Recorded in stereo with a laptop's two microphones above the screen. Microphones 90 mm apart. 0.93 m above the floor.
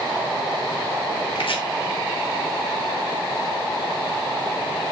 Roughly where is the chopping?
Left.